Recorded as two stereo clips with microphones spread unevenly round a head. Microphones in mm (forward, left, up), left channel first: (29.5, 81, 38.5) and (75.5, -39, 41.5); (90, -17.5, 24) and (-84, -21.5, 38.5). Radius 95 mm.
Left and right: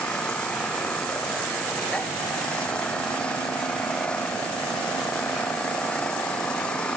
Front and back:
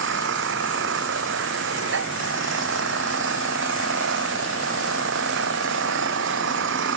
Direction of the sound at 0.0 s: 165° right.